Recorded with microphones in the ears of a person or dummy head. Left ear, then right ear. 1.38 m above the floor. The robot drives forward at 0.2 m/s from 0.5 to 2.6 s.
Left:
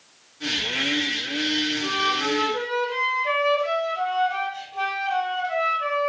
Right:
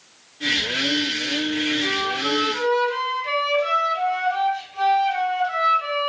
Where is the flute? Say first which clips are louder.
Even; 20° left (ahead or behind), 1.5 m.